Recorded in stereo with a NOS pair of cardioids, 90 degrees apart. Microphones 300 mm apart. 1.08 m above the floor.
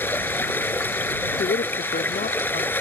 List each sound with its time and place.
0.0 s running water: 5° left
1.4 s a woman speaking: 30° left